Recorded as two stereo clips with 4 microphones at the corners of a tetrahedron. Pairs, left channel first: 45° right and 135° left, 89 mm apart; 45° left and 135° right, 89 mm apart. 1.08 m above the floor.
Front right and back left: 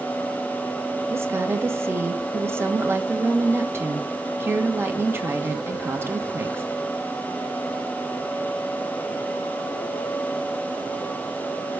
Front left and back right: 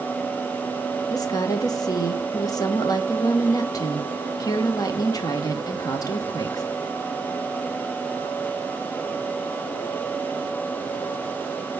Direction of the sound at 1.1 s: 80° left.